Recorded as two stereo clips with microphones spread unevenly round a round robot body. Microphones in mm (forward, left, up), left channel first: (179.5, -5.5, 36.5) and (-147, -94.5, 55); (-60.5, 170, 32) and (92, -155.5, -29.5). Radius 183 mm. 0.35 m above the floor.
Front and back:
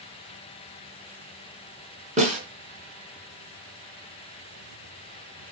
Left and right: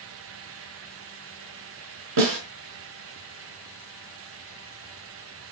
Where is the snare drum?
95° right, 4.5 m.